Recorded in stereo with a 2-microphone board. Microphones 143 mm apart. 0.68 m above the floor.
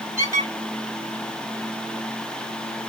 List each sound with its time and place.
0.2 s a squeak: 20° right (ahead or behind), 1.4 m